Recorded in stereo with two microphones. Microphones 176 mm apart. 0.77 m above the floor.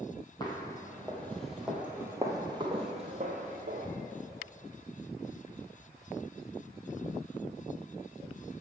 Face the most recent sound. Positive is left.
turn(degrees=-55)  # may be behind; listen again after turning